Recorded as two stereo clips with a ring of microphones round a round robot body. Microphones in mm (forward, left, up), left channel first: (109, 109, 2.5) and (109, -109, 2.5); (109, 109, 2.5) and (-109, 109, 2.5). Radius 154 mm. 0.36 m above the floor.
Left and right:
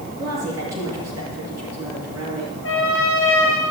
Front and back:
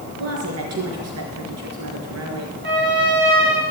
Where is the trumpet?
145° left, 6 m.